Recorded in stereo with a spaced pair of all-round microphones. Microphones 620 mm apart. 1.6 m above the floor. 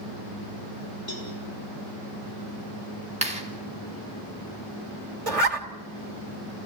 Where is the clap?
10° right (ahead or behind), 3.5 m.